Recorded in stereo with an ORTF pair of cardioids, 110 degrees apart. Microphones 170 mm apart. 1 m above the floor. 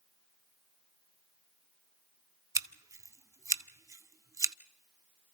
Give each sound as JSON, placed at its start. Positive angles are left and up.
{"t": 2.5, "sound": "scissors", "azimuth_deg": -20, "distance_m": 0.7}